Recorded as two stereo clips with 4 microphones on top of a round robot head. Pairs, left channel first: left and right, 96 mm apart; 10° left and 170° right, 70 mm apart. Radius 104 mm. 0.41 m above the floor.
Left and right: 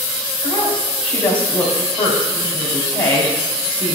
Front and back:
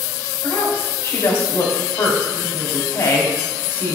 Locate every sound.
0.4 s a woman speaking: 60° left, 3 m